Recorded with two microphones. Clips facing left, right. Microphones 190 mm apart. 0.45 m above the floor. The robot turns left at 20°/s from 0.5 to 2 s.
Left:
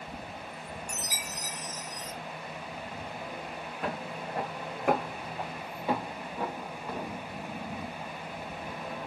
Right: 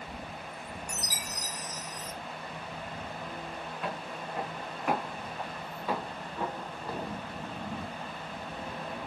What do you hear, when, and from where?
0.9 s a chime: 40° right (ahead or behind), 0.9 m; by 2.1 s 30° right (ahead or behind), 0.9 m
3.8 s footsteps: 50° left (ahead or behind), 2 m; by 7.2 s 15° right (ahead or behind), 1.0 m